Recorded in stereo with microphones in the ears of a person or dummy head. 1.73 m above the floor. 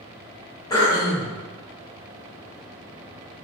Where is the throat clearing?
15° left (ahead or behind), 0.8 m.